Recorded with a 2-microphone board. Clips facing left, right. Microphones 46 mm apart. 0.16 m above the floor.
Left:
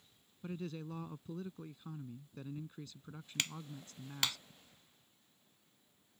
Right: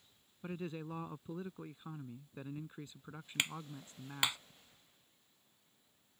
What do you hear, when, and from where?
0.4 s a man speaking: 25° right (ahead or behind)
3.4 s a clap: 20° right (ahead or behind)